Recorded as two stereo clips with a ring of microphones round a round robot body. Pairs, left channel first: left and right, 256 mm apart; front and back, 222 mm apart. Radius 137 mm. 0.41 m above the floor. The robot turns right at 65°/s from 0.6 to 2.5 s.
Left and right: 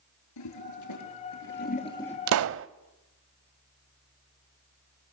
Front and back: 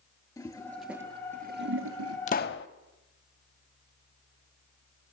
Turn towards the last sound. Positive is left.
turn(degrees=-50)